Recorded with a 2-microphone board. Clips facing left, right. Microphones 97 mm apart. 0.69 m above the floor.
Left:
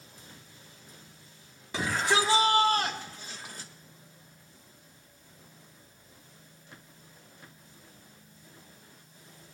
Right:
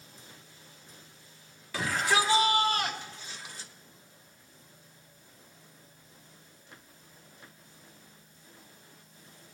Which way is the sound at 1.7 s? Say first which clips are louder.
Left 1 dB; 25° left (ahead or behind).